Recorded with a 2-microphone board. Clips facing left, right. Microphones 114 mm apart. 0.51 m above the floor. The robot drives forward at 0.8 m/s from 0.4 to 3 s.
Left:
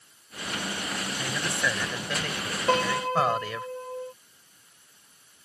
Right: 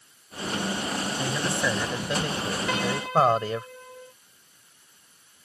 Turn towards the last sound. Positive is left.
turn(degrees=40)  # may be behind; listen again after turning